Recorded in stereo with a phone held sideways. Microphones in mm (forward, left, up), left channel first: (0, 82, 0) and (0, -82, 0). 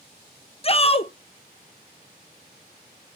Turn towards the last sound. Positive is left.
turn(degrees=35)  # may be behind; listen again after turning